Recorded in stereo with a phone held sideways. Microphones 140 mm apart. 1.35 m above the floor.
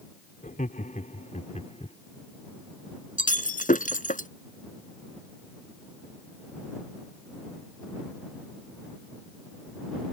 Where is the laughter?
70° left (ahead or behind); by 2.0 s 50° left (ahead or behind).